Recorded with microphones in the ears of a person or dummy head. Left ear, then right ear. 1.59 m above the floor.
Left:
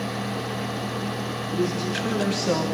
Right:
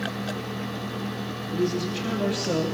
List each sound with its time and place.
1.5 s a man speaking: 15° left (ahead or behind), 3.5 m; by 2.6 s 20° left (ahead or behind), 2.5 m